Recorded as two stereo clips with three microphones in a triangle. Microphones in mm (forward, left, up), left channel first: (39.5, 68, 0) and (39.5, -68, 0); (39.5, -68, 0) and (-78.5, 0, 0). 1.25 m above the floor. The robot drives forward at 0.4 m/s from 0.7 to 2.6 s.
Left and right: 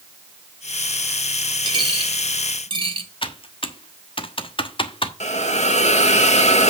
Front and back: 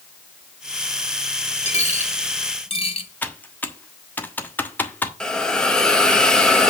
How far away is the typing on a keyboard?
About 1.1 m.